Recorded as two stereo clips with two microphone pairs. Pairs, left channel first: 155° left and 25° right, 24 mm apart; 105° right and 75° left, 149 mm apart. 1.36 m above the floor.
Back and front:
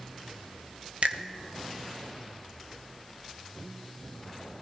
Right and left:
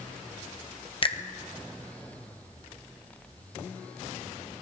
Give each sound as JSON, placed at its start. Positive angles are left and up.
{"t": 1.0, "sound": "a finger snap", "azimuth_deg": -55, "distance_m": 1.0}